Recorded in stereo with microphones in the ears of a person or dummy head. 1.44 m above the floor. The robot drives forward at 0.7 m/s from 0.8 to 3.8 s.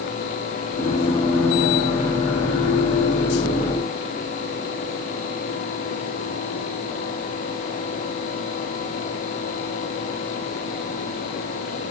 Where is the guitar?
No guitar in this recording.